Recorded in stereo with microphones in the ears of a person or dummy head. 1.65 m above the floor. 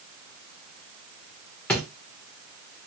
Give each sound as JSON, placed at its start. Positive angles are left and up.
{"t": 1.7, "sound": "a drawer", "side_deg": 5, "distance_m": 0.9}